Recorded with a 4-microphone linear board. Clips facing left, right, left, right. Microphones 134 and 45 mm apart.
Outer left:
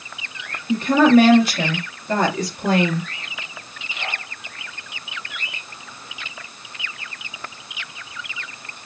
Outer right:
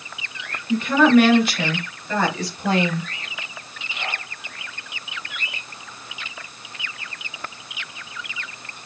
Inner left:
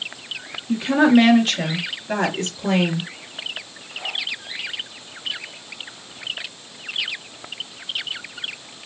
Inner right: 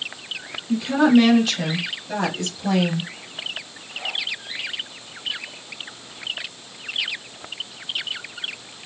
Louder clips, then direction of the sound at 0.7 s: Outer left 2 dB, inner left 1 dB; 40° left (ahead or behind).